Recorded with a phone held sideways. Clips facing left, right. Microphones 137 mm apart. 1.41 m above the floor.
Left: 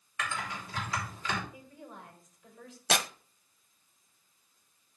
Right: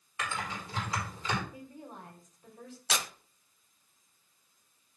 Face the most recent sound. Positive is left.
turn(degrees=60)  # may be behind; listen again after turning